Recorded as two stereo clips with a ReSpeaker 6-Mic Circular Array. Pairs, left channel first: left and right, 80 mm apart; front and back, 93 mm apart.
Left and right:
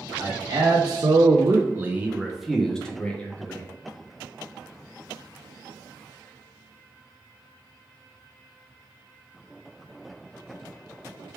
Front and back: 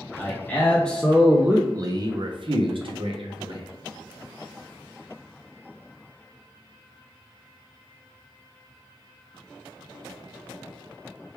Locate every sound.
0.2 s a man speaking: 65° right, 0.9 m; by 3.7 s 160° left, 1.2 m